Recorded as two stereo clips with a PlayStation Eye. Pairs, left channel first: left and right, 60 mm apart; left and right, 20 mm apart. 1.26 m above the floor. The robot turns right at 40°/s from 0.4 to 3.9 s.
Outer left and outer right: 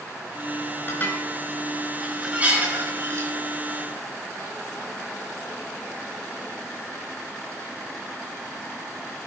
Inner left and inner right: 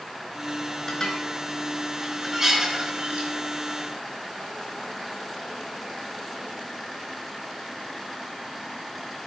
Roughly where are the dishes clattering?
Left.